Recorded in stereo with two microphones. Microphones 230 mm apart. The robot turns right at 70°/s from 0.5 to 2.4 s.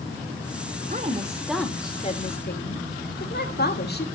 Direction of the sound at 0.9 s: 45° right.